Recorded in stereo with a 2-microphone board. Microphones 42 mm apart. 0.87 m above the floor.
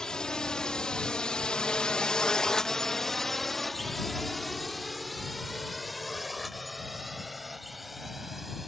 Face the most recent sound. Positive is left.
turn(degrees=-5)  # may be behind; listen again after turning